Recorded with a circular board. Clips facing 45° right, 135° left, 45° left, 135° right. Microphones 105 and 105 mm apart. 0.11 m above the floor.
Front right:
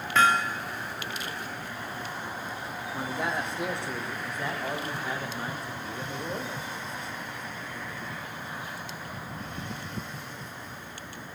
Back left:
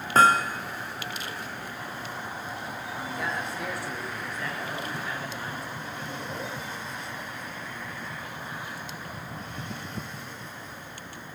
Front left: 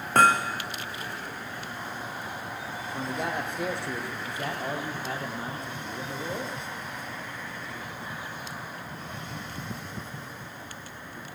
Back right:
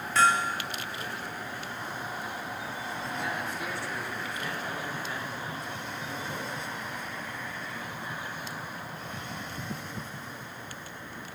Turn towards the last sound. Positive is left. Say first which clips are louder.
# front right 4 dB, front left 3 dB
turn(degrees=15)